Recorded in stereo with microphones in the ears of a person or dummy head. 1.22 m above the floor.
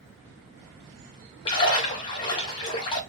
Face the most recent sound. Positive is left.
turn(degrees=25)  # may be behind; listen again after turning